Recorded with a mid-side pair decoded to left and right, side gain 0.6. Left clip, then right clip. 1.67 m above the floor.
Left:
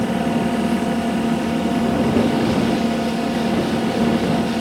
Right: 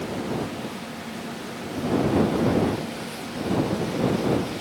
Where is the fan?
70° left.